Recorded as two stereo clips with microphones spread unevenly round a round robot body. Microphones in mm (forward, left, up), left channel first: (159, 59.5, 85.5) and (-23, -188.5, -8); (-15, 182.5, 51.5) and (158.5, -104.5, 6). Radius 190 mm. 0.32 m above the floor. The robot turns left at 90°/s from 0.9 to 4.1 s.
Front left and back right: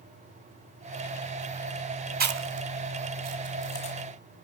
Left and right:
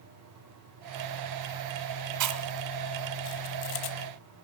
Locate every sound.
2.2 s chewing: 80° right, 1.1 m; by 4.0 s 125° left, 1.1 m